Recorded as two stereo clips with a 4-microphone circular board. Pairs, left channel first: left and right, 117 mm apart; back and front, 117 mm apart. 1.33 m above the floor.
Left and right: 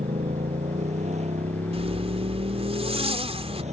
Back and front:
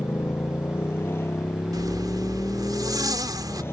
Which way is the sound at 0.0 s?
110° right.